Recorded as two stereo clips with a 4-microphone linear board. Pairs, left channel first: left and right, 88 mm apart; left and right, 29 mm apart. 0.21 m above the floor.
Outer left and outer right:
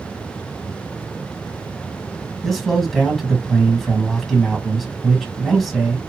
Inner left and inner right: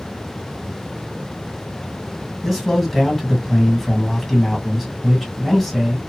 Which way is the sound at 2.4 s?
Centre (ahead or behind).